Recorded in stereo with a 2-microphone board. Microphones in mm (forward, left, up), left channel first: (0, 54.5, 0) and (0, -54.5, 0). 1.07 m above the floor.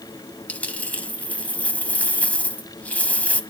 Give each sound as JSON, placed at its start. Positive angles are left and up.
{"t": 0.5, "sound": "a dropped coin", "side_deg": 10, "distance_m": 1.2}